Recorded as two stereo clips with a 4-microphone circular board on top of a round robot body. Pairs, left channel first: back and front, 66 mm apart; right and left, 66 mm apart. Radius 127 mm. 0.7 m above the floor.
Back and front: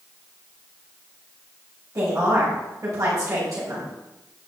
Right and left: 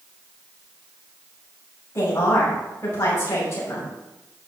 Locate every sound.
1.9 s a woman speaking: 40° right, 6 m